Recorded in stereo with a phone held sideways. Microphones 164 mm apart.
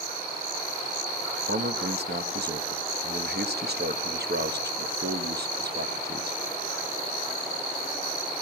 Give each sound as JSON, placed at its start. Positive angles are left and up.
{"t": 1.5, "sound": "a man speaking", "side_deg": -85, "distance_m": 1.4}